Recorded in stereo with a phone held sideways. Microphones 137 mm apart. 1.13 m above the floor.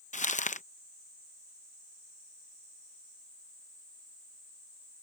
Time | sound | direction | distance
0.1 | crumpling | 65° left (ahead or behind) | ?